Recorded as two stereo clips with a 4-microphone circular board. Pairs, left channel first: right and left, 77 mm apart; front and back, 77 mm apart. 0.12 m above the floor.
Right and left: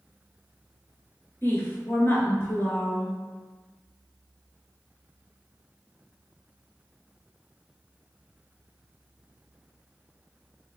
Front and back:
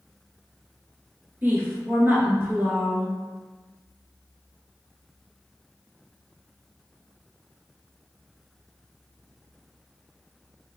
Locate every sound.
1.4 s a woman speaking: 135° right, 1.5 m